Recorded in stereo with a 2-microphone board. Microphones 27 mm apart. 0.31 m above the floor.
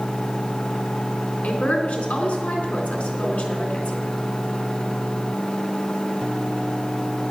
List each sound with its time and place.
1.4 s a woman speaking: 70° left (ahead or behind), 3 m